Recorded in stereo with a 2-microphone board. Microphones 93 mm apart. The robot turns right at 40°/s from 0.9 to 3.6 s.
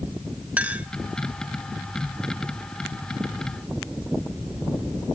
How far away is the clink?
About 1.0 m.